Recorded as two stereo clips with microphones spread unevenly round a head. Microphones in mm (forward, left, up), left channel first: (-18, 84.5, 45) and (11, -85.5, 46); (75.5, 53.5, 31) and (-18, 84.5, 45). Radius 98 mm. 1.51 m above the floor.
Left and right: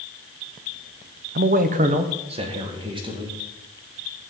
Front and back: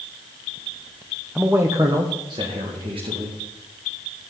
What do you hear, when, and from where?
1.4 s a man speaking: 115° right, 0.9 m; by 3.4 s 145° right, 3 m